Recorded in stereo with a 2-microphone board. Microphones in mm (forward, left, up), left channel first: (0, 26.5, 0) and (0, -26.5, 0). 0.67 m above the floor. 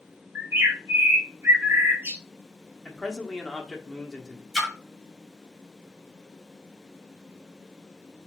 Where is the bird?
50° right (ahead or behind), 1.3 m.